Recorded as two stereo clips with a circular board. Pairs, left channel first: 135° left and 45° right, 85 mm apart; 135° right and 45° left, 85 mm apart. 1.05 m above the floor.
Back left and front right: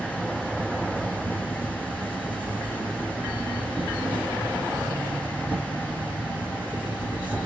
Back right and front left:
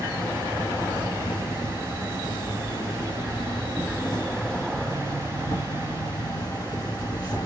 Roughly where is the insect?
Behind right.